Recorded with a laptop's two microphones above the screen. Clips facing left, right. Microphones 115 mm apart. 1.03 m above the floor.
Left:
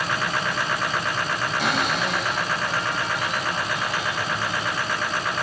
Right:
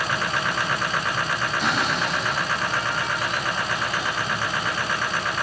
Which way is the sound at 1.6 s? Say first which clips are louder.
Left 1 dB; 70° left (ahead or behind).